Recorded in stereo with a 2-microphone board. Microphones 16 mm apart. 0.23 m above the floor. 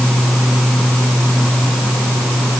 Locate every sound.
Only background noise.